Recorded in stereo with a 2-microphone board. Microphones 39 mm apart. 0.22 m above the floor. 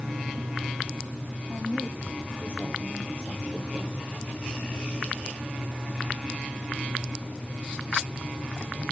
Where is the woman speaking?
20° left (ahead or behind), 4.5 m.